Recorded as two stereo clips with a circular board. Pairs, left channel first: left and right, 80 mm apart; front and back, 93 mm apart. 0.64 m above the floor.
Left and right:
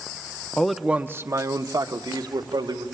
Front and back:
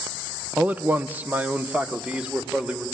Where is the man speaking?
145° left, 0.6 m; by 2.9 s 100° right, 2 m.